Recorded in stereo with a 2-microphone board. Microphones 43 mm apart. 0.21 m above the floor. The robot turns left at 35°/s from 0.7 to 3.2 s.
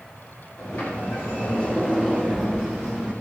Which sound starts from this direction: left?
A sliding door, at 0.6 s.